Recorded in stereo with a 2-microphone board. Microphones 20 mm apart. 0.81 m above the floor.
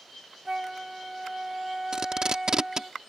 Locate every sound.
0.5 s a flute: 20° right (ahead or behind)
1.9 s tape being pulled: 45° right (ahead or behind)